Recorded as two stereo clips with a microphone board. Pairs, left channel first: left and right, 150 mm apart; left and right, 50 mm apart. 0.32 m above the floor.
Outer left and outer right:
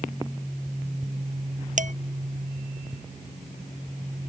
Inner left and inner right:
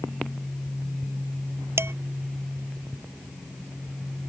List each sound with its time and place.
1.8 s dishes clattering: 55° right (ahead or behind)